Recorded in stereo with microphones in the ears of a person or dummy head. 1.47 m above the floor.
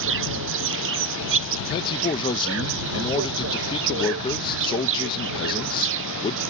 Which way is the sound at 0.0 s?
65° right (ahead or behind).